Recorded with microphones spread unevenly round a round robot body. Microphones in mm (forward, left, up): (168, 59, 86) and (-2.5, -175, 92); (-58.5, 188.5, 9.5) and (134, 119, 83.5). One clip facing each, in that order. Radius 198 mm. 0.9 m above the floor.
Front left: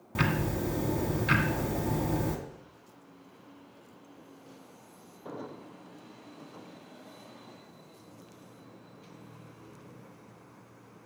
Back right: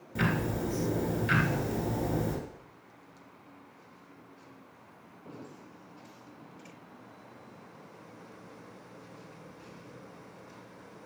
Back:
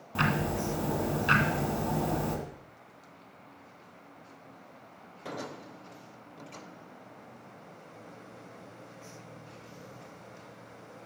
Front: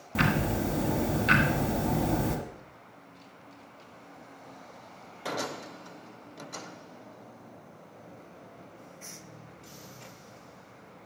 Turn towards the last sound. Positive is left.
turn(degrees=40)